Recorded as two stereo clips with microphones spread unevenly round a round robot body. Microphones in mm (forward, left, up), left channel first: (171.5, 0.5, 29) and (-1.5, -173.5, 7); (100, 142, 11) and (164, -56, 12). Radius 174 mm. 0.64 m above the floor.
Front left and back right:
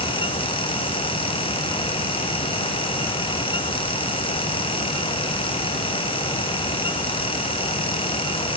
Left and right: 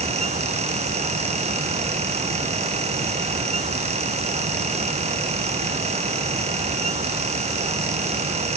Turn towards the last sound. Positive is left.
No sound to turn to.